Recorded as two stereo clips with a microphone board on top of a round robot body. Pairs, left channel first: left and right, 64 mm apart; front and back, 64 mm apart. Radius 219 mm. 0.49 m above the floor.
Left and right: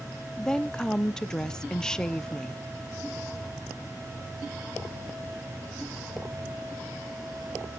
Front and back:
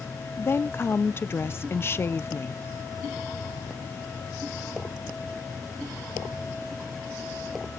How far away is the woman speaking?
About 0.8 m.